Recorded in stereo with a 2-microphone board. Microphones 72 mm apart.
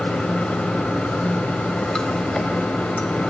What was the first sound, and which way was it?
Running water, 15° left (ahead or behind).